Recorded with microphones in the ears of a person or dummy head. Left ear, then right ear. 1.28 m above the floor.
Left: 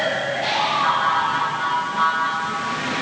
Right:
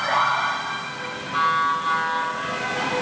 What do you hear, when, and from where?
Only background noise.